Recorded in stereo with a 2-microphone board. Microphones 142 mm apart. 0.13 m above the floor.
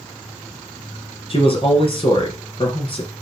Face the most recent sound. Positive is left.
turn(degrees=40)  # may be behind; listen again after turning